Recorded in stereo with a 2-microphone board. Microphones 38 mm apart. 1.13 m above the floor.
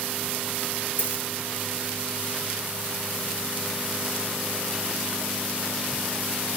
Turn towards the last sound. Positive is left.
turn(degrees=50)  # may be behind; listen again after turning